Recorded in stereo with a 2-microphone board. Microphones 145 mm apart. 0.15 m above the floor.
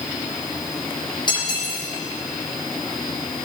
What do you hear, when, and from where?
1.3 s cutlery clinking: 30° left (ahead or behind), 4.5 m